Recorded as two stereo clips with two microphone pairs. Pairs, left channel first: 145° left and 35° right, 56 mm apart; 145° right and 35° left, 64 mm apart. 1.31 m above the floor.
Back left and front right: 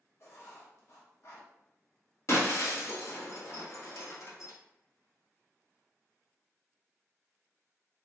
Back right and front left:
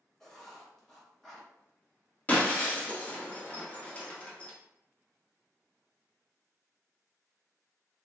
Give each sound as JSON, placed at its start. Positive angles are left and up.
{"t": 0.2, "sound": "writing", "azimuth_deg": 135, "distance_m": 0.9}
{"t": 2.3, "sound": "breaking glass", "azimuth_deg": 155, "distance_m": 1.0}